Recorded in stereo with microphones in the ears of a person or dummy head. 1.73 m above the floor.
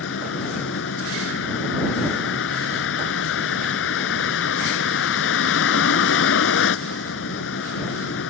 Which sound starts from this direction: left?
A vehicle, at 0.0 s.